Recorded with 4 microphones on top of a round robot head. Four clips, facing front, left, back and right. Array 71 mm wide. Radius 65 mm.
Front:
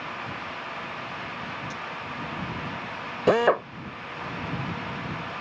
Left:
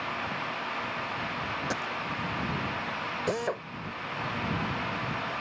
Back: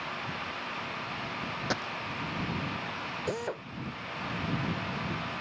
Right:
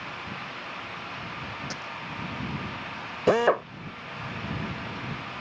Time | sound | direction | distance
1.7 | a dropped coin | 155° left | ?
3.3 | a drill | 35° right | ?